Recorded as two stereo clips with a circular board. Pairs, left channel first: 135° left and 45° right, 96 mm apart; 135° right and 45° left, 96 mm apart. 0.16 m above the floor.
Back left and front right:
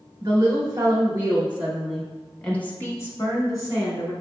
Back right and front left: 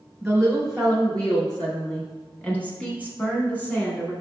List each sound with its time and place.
0.2 s a woman speaking: 40° right, 1.3 m; by 4.1 s 160° left, 1.5 m